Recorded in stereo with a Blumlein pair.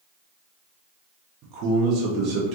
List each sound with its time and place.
1.4 s a man speaking: 35° right, 0.7 m